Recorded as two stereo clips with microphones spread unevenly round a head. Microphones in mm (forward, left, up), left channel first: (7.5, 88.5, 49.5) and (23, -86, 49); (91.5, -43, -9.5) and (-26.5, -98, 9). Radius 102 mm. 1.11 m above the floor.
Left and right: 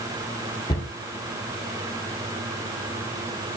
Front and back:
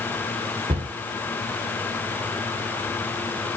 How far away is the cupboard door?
About 1.1 m.